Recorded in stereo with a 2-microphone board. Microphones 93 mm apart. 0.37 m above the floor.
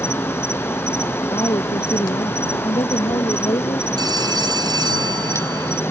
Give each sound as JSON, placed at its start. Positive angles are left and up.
{"t": 0.0, "sound": "an insect", "side_deg": 30}
{"t": 1.3, "sound": "a woman speaking", "side_deg": 50}
{"t": 4.0, "sound": "a phone ringing", "side_deg": -50}